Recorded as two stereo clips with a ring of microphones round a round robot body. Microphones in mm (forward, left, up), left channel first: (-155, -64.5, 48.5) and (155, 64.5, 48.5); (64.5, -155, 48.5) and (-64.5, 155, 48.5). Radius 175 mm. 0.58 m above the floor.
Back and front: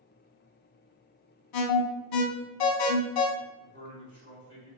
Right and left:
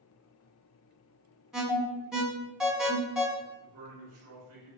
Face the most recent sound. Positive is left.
turn(degrees=75)